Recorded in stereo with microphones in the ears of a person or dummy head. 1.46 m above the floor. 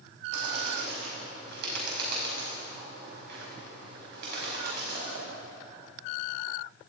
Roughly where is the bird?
Right.